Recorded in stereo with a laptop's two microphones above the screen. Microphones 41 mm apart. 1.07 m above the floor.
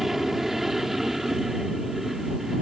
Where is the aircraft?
5° right (ahead or behind).